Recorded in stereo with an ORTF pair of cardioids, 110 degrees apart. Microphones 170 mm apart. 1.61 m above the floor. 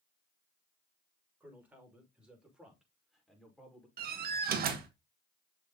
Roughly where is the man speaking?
Ahead.